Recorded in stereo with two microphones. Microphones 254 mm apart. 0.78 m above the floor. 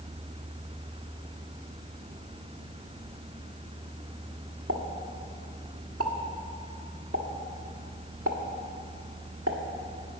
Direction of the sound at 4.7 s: 75° right (ahead or behind).